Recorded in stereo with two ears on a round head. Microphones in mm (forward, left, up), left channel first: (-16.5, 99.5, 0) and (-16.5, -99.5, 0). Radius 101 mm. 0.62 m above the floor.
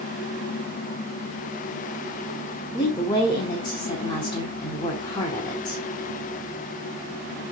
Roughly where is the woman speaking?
Centre.